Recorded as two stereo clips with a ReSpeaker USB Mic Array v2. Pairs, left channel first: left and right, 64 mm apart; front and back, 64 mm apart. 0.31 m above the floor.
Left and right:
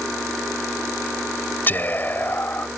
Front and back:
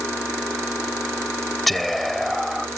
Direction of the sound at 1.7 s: 90° left.